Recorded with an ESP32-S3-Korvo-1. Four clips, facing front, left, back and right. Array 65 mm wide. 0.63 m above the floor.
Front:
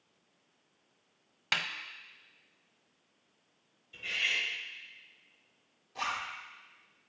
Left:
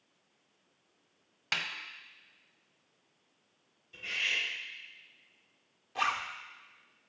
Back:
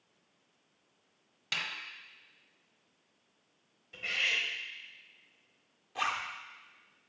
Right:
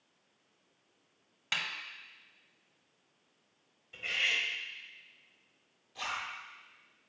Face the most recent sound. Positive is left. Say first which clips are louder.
# left 7 dB, back 2 dB
turn(degrees=115)